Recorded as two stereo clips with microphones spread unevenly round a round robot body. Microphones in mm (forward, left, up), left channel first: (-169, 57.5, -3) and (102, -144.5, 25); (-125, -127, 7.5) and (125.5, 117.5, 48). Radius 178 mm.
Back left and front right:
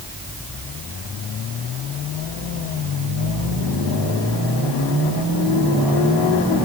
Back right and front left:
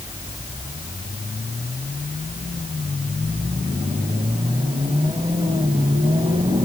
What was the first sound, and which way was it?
Only background noise.